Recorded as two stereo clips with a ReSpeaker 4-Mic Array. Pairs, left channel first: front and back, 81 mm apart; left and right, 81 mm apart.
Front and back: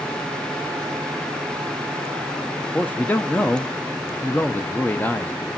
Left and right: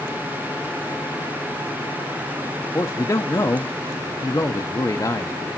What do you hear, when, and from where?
2.7 s a man speaking: 60° left, 0.6 m